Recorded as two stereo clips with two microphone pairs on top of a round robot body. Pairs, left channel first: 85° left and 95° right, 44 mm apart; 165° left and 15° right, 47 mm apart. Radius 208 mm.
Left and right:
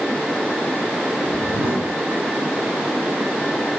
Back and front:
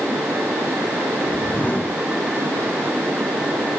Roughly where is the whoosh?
Behind right.